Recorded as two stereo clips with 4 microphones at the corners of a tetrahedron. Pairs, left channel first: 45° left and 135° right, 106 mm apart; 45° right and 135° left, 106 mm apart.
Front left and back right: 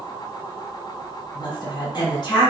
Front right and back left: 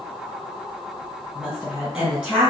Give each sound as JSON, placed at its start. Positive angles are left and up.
{"t": 1.4, "sound": "a woman speaking", "azimuth_deg": 60, "distance_m": 1.8}